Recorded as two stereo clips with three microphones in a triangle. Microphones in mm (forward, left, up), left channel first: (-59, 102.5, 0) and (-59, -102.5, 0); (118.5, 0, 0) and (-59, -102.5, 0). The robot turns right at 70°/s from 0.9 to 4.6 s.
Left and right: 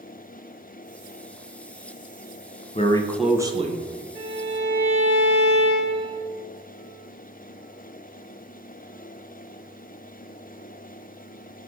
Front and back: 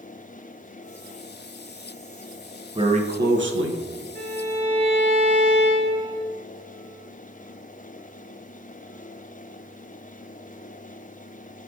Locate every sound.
2.8 s a man speaking: 150° left, 0.5 m; by 4.0 s 120° right, 0.5 m
4.2 s a violin: 120° right, 1.8 m; by 6.2 s 90° right, 1.8 m